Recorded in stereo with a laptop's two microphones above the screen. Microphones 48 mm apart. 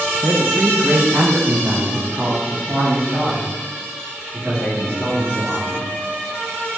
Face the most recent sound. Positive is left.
turn(degrees=-75)  # may be behind; listen again after turning